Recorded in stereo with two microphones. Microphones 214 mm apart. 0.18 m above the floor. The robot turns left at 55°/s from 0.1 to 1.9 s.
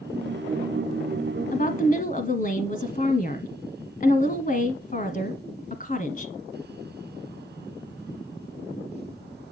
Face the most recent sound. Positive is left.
turn(degrees=40)  # may be behind; listen again after turning